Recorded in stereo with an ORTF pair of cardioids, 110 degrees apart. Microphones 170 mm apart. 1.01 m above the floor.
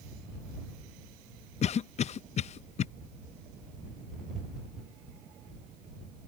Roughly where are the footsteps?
No footsteps in this recording.